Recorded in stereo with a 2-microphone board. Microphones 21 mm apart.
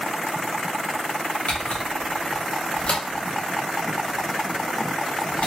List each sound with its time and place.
1.5 s a camera shutter: 75° left (ahead or behind), 0.9 m